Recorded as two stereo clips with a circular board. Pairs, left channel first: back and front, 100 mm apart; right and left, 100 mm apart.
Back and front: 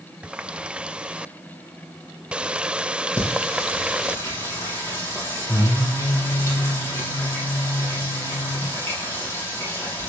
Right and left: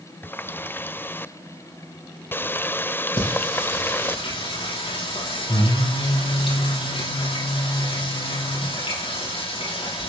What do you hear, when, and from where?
0.2 s a running tap: 60° right, 0.5 m
3.2 s singing: 115° right, 9 m